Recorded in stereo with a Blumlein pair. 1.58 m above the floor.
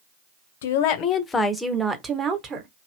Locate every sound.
0.6 s a woman speaking: 60° left, 0.7 m; by 2.7 s 30° right, 1.2 m